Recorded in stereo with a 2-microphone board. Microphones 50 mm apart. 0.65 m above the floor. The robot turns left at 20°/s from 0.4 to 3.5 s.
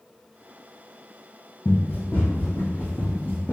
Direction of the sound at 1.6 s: 50° left (ahead or behind).